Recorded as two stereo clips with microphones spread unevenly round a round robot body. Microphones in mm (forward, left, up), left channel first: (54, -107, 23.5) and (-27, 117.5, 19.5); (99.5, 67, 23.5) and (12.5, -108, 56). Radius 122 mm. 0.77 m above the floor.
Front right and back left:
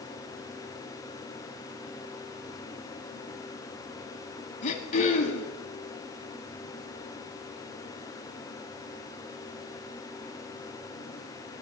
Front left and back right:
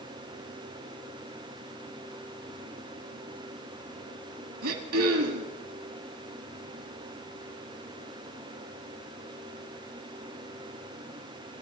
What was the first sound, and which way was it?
Throat clearing, 130° right.